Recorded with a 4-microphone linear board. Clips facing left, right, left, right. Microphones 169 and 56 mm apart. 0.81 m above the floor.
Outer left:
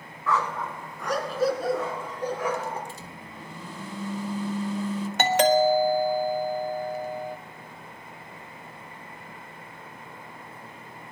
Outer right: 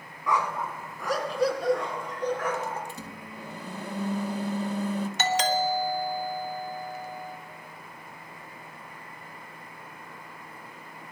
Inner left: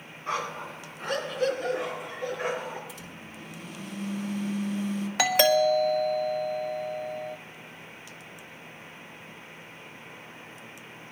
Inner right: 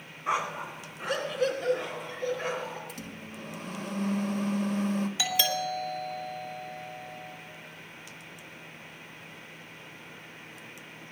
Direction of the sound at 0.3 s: 15° right (ahead or behind).